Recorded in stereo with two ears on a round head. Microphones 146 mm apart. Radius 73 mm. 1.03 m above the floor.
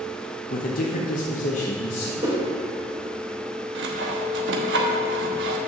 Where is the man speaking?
55° left (ahead or behind), 0.9 m; by 2.1 s 35° left (ahead or behind), 1.1 m.